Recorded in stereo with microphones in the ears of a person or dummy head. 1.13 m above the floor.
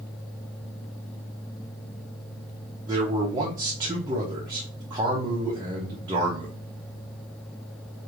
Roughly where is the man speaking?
Right.